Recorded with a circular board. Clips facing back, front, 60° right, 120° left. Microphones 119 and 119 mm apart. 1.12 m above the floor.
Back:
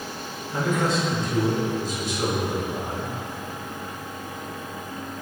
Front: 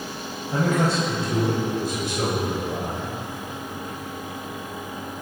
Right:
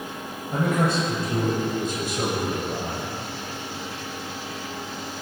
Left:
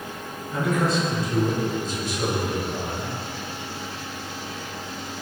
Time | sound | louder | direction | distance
0.5 | a man speaking | front 2 dB, even | 25° right | 7 m